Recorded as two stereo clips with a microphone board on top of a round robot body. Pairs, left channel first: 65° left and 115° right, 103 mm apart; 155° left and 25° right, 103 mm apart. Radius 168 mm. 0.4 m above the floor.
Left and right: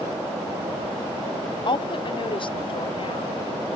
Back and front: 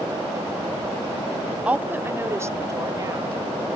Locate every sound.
1.6 s a woman speaking: 50° left; by 3.4 s 35° left